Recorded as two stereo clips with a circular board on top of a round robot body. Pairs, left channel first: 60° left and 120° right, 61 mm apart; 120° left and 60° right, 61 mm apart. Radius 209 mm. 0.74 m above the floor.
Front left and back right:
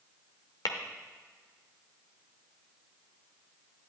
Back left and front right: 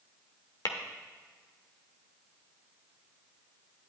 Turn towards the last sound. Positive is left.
turn(degrees=90)